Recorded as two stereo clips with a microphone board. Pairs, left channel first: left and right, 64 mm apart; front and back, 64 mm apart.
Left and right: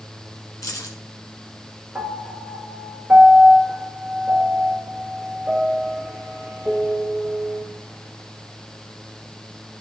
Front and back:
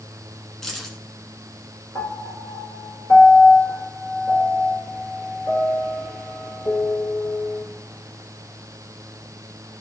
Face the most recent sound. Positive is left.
turn(degrees=-15)